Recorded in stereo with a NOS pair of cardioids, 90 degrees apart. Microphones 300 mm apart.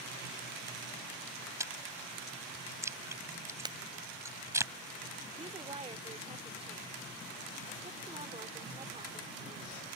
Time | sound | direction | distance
1.6 | chewing | 10° right | ?
3.6 | breaking glass | 15° right | ?
5.4 | a woman speaking | 20° right | ?